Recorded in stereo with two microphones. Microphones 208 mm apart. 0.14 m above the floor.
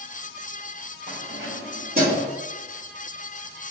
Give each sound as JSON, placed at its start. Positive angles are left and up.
{"t": 1.1, "sound": "keys jangling", "side_deg": -60, "distance_m": 1.9}